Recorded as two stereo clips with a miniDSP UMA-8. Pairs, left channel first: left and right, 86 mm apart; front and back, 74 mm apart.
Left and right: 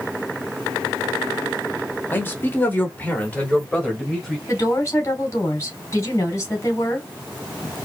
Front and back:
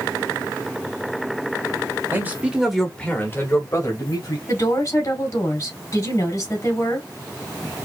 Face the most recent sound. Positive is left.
turn(degrees=35)